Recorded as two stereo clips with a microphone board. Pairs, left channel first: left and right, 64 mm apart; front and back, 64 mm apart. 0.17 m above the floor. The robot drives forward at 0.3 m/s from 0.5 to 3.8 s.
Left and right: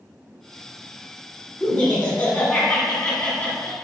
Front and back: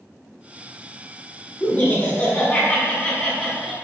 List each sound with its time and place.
1.6 s laughter: 35° left, 1.4 m; by 3.7 s 75° left, 1.2 m